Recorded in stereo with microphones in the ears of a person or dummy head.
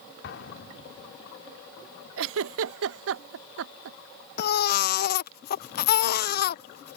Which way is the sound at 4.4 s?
55° left (ahead or behind).